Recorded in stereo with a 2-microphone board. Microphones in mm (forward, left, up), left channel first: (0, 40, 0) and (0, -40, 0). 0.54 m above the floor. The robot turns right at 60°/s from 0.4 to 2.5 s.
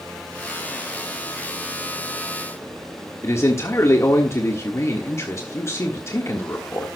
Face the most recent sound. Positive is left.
turn(degrees=40)  # may be behind; listen again after turning